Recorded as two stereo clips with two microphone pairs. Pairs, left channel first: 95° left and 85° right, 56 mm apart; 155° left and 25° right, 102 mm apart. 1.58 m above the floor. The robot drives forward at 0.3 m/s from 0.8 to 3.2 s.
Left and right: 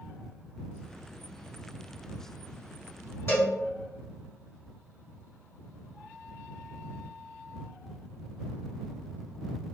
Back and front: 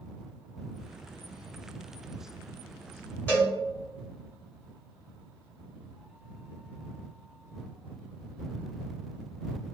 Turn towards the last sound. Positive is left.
turn(degrees=85)